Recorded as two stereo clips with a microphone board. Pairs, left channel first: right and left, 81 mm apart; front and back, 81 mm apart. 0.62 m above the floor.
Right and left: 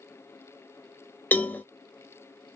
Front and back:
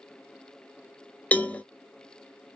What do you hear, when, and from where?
1.3 s a cowbell: 50° right, 0.5 m